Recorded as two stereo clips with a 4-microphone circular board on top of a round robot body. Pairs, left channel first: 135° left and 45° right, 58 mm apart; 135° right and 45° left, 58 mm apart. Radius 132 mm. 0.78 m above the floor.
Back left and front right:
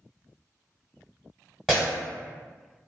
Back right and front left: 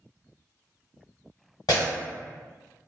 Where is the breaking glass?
130° right, 1.0 m.